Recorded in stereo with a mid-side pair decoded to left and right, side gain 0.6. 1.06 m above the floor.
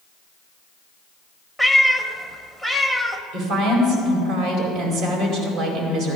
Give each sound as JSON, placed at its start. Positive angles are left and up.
{"t": 1.6, "sound": "a cat meowing", "azimuth_deg": -5, "distance_m": 1.2}
{"t": 3.3, "sound": "a woman speaking", "azimuth_deg": -65, "distance_m": 4.5}